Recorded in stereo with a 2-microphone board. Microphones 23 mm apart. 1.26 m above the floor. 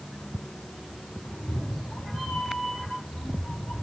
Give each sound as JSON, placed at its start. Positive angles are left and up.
{"t": 1.2, "sound": "a cat meowing", "side_deg": 60, "distance_m": 2.5}